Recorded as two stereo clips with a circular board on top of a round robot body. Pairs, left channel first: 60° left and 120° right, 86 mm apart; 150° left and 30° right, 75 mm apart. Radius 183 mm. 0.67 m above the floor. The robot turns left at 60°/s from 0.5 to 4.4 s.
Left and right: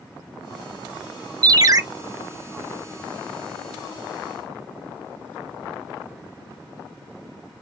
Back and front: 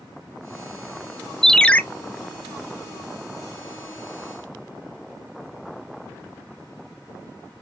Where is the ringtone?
125° right, 0.6 m; by 1.8 s 145° right, 0.6 m.